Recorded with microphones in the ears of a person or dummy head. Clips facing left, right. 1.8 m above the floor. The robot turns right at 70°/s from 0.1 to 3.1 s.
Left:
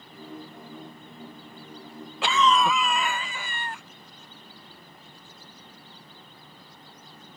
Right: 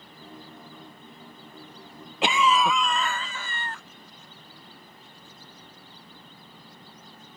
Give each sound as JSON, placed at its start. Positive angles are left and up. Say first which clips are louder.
{"t": 2.2, "sound": "a cough", "louder": "even", "azimuth_deg": -30}